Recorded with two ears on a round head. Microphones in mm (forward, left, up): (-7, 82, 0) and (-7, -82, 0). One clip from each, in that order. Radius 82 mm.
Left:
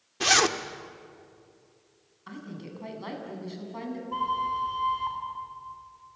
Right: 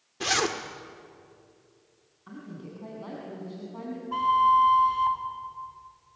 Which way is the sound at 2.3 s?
60° left (ahead or behind).